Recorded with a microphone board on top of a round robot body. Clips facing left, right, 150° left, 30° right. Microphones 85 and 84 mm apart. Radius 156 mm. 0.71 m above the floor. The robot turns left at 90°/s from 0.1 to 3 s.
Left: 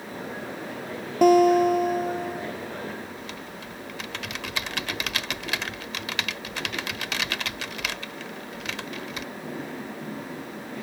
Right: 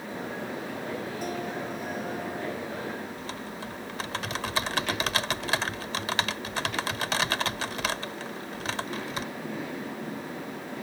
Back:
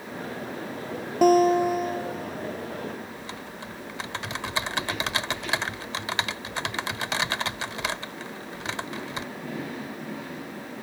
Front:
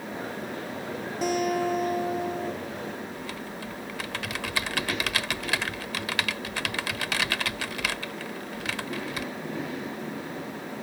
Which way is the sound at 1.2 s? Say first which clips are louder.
Left 17 dB, back 8 dB; 115° left.